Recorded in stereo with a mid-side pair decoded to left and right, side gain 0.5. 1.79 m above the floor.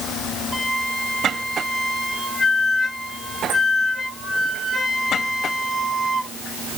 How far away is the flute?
About 4 m.